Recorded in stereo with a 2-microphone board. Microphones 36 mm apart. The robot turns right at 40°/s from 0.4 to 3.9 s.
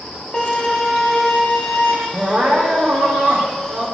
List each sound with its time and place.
0.3 s a violin: 45° left, 2.5 m; by 2.0 s 110° left, 2.5 m
2.1 s crying: 150° right, 2.5 m; by 3.9 s 85° right, 2.5 m